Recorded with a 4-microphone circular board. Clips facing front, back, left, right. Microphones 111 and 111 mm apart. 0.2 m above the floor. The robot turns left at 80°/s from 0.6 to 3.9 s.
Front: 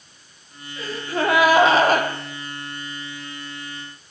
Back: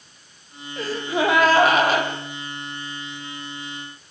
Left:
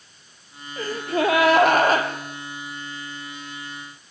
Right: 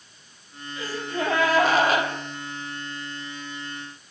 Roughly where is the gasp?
Behind left.